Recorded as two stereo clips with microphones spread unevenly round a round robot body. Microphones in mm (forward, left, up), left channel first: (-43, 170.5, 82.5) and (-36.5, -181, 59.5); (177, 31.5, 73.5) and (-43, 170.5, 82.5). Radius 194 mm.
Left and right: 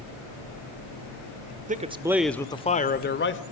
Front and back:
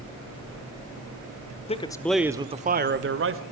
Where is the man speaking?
60° right, 1.1 m; by 3.4 s 140° left, 1.5 m.